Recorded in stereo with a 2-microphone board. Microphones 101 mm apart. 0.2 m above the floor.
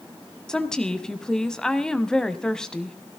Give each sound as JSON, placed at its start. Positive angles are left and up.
{"t": 0.5, "sound": "a woman speaking", "side_deg": 10, "distance_m": 1.0}